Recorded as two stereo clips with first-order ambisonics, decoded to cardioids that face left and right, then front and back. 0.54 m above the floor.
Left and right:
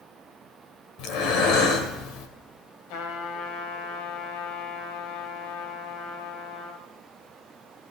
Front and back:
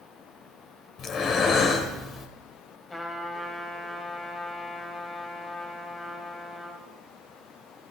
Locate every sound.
1.0 s breathing: 55° left, 1.9 m
2.9 s a trumpet: 75° left, 2.5 m